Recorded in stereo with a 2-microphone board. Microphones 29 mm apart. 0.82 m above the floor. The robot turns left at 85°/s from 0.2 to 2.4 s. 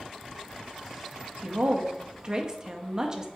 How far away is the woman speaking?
About 0.6 m.